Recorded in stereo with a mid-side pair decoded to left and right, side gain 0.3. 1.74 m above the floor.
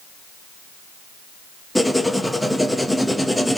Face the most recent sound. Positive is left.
turn(degrees=5)